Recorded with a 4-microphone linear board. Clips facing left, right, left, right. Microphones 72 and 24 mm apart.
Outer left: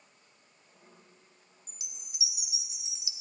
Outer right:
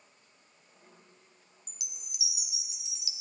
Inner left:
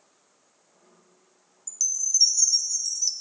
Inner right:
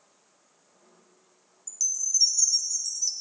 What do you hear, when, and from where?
1.7 s a chime: 25° left (ahead or behind), 1.3 m